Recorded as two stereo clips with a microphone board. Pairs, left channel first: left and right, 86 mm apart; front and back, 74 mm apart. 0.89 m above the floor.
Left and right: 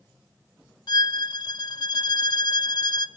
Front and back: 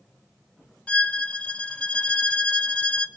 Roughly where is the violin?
Left.